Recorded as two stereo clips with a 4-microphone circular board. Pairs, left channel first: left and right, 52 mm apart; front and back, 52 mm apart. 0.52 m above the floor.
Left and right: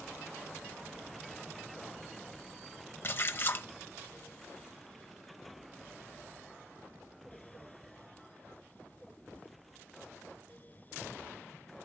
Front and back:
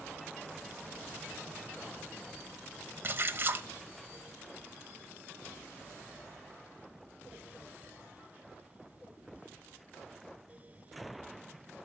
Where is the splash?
135° left, 0.8 m.